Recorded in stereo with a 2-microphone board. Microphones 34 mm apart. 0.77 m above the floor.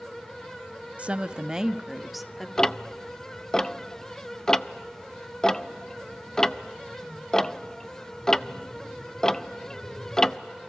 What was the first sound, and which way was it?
A woman speaking, 45° right (ahead or behind).